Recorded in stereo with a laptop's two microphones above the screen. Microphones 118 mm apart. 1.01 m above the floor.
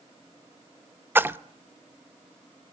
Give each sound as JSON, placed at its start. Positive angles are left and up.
{"t": 1.1, "sound": "a splash", "side_deg": -15, "distance_m": 0.8}